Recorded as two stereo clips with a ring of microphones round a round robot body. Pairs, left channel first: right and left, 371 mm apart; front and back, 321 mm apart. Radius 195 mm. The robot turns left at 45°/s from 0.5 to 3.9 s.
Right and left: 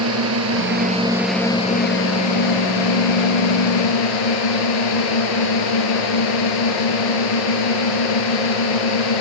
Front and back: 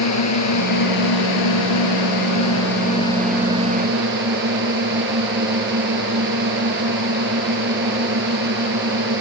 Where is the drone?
35° left; by 9.2 s 115° right.